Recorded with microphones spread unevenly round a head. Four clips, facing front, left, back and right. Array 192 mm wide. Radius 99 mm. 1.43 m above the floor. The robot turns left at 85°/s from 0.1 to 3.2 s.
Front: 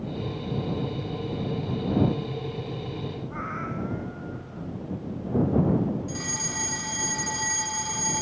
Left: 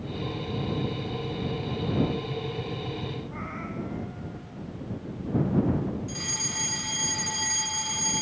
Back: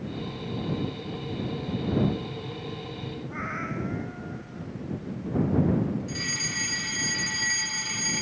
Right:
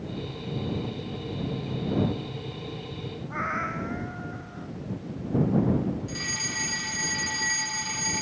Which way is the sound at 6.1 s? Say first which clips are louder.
Right 1 dB, front 1 dB; 5° right.